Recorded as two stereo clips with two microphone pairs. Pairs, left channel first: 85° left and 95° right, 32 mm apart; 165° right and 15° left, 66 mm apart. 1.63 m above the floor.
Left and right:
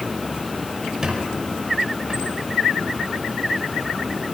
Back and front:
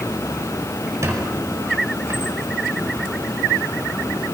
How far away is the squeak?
About 5 m.